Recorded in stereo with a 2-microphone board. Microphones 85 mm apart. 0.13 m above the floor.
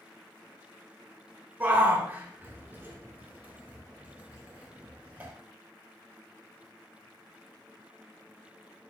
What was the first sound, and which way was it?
A shout, 25° right (ahead or behind).